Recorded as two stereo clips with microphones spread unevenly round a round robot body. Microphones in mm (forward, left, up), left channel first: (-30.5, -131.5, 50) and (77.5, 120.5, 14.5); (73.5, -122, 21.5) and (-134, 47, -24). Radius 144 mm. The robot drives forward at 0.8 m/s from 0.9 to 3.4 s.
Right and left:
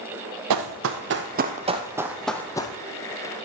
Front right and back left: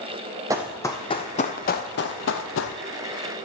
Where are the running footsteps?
60° left, 0.8 m; by 2.8 s 50° right, 0.8 m.